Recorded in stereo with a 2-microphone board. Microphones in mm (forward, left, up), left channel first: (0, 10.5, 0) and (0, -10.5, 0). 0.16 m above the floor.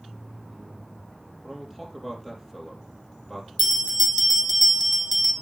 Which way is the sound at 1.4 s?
15° left (ahead or behind).